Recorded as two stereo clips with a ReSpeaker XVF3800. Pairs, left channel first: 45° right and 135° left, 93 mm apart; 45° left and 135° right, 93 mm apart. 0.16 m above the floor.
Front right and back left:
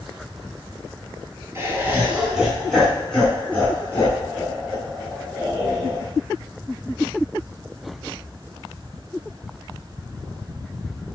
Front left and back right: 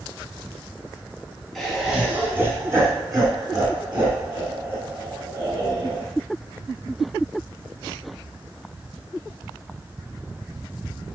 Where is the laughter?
125° left, 1.1 m; by 6.1 s 100° right, 3 m.